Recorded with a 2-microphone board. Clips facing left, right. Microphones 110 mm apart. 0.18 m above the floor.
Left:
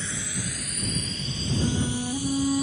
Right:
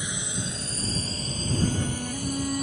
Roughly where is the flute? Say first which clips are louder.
Left 3 dB; centre.